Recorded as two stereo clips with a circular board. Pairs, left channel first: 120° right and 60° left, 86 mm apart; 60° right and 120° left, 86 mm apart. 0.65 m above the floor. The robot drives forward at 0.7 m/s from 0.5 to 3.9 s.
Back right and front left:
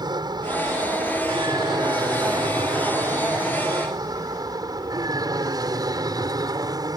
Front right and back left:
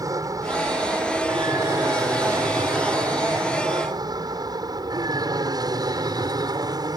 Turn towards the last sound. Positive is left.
turn(degrees=90)